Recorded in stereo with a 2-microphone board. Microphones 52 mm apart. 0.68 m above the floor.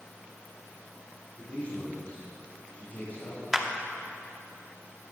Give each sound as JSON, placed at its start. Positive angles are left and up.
{"t": 1.4, "sound": "a man speaking", "side_deg": 30, "distance_m": 3.5}
{"t": 3.5, "sound": "a clap", "side_deg": -10, "distance_m": 0.8}